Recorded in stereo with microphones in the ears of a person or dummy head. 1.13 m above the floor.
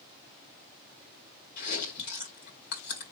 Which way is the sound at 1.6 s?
55° left (ahead or behind).